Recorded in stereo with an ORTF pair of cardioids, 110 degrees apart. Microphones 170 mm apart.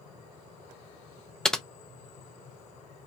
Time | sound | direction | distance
1.4 | typing on a keyboard | 5° left | 0.5 m